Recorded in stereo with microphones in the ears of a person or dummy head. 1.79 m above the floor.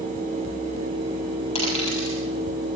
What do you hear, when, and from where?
1.6 s a dropped coin: 30° left (ahead or behind), 7 m